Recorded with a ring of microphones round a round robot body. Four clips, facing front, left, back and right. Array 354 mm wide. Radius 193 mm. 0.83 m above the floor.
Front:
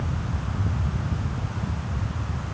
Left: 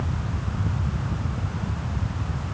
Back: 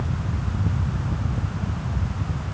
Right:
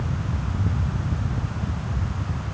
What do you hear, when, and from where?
Only background noise.